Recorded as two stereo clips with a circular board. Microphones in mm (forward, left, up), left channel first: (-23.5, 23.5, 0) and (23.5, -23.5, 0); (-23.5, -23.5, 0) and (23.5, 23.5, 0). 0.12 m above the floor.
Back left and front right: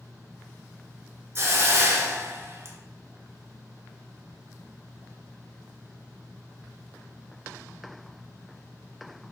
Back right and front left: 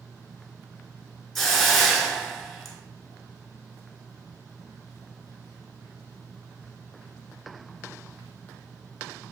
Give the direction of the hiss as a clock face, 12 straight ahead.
2 o'clock.